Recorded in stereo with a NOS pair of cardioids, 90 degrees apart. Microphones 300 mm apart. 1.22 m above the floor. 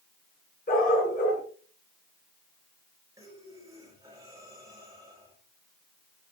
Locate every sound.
0.7 s a dog barking: 30° left, 7 m
3.2 s breathing: 10° right, 5 m